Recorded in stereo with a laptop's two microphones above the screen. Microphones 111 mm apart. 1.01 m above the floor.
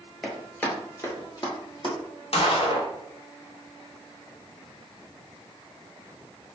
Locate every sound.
0.2 s running footsteps: 5° left (ahead or behind), 1.2 m; by 1.9 s 45° left (ahead or behind), 1.3 m
2.3 s a gunshot: 60° left (ahead or behind), 0.6 m